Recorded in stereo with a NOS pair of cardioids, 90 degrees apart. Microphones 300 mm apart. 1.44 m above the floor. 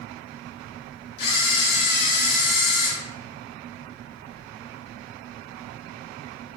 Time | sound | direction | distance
1.2 | a camera shutter | 65° left | 1.6 m